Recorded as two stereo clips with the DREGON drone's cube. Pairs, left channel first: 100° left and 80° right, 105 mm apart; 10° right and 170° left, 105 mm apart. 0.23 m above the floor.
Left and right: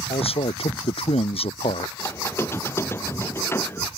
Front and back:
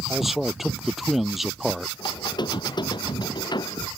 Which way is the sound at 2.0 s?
35° left.